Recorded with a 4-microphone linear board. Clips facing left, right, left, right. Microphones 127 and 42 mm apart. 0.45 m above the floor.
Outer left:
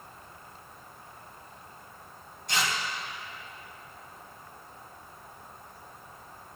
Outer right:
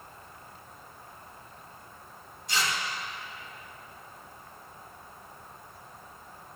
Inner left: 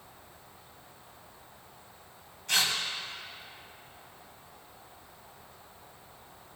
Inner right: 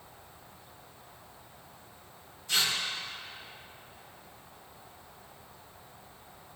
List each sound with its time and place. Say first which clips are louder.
2.5 s tearing paper: outer left 1 dB, inner left 1 dB; 60° left (ahead or behind), 1.8 m